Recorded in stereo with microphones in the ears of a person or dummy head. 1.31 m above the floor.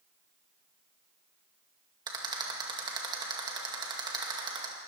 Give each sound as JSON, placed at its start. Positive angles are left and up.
{"t": 2.1, "sound": "a rattle", "side_deg": -25, "distance_m": 2.0}